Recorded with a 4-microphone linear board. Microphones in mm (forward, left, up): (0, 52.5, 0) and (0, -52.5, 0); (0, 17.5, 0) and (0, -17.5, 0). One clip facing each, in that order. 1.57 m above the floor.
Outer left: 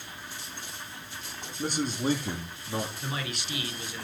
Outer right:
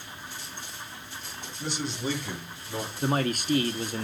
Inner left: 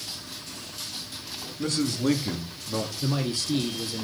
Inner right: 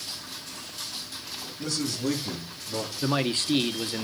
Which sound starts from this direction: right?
A man speaking, at 3.0 s.